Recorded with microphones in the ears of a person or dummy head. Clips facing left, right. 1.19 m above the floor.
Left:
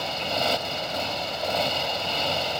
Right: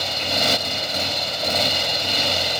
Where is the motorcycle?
25° right (ahead or behind).